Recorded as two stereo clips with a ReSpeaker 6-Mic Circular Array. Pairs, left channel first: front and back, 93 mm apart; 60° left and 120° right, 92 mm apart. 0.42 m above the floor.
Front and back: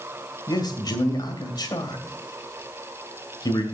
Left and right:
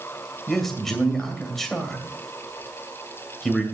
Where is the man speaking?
25° right, 2.5 m.